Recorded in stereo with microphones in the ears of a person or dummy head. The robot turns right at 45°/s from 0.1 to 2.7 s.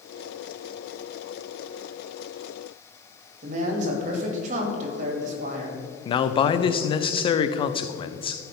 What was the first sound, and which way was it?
A man speaking, 45° right (ahead or behind).